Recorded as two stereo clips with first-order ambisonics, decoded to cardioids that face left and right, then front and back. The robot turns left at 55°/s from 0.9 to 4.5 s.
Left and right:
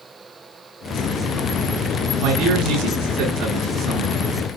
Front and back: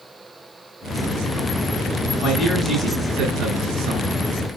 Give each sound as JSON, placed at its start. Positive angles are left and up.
{"t": 2.2, "sound": "a man speaking", "azimuth_deg": -75, "distance_m": 7.0}